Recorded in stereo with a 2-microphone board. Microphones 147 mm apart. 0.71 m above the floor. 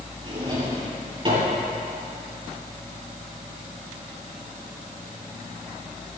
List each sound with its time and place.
0.2 s a drawer: 35° right (ahead or behind), 7.5 m